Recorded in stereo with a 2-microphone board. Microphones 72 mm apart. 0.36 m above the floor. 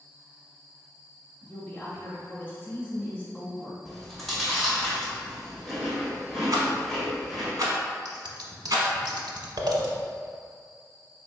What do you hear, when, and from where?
1.4 s a woman speaking: 25° left (ahead or behind), 1.2 m
3.9 s chewing: 5° left (ahead or behind), 1.5 m
6.5 s a rattle: 55° right (ahead or behind), 0.9 m
8.1 s scissors: 70° right (ahead or behind), 0.6 m